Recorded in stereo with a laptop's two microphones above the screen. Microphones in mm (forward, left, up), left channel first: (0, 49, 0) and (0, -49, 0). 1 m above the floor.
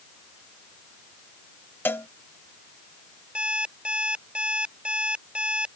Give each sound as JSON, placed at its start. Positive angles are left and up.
{"t": 1.9, "sound": "a cowbell", "side_deg": 20}
{"t": 3.4, "sound": "an alarm clock", "side_deg": -10}